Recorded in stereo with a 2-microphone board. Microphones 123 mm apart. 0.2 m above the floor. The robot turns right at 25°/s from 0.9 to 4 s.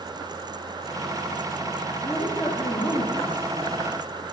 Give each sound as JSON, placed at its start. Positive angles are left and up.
{"t": 2.0, "sound": "a woman speaking", "azimuth_deg": 50, "distance_m": 3.5}